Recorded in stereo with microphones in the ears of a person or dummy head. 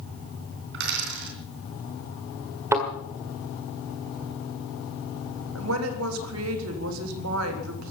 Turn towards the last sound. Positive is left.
turn(degrees=-85)